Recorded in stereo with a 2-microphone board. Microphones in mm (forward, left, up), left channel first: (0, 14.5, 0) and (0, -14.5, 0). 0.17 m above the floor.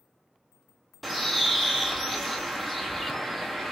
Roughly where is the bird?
Centre.